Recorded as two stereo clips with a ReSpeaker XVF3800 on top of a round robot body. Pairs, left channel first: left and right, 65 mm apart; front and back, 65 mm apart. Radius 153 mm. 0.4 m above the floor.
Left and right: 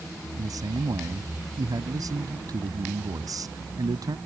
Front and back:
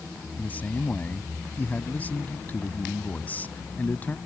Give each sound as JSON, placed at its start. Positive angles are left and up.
{"t": 0.4, "sound": "a man speaking", "azimuth_deg": -65}